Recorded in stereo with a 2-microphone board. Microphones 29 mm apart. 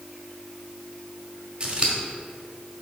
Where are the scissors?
30° right (ahead or behind), 1.3 m.